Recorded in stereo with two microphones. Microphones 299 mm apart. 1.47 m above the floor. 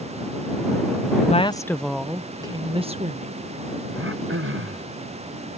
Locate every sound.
1.2 s a woman speaking: 25° left (ahead or behind); by 3.5 s 25° right (ahead or behind)
3.9 s throat clearing: 45° right (ahead or behind)